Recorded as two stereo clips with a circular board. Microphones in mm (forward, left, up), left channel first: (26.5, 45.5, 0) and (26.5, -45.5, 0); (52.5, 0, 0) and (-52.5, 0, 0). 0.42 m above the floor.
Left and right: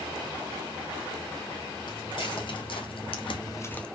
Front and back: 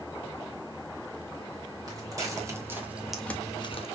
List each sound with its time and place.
1.9 s footsteps: 125° left, 2 m; by 3.9 s 10° left, 0.8 m